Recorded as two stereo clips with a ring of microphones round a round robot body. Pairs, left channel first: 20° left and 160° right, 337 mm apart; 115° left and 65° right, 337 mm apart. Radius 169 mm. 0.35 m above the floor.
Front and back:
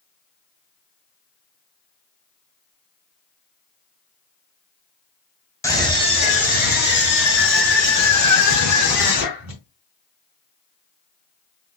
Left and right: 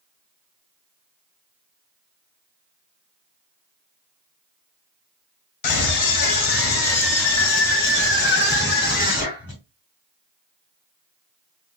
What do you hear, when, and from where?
5.6 s a scream: 100° left, 2 m; by 9.6 s 45° left, 3.5 m